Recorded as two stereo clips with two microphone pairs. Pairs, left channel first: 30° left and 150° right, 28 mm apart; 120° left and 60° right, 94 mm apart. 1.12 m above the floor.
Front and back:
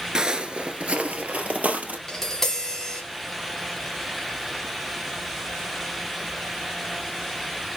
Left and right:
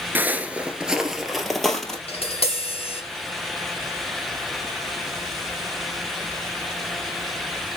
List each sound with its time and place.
0.1 s footsteps: 115° right, 1.2 m; by 2.0 s 160° right, 2 m
2.1 s tapping: 115° left, 4 m